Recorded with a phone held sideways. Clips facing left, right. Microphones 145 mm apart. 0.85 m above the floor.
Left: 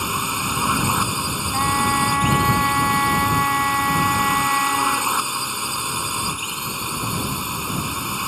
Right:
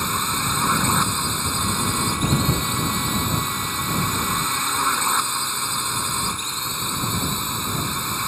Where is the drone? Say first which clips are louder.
Even; 10° left (ahead or behind).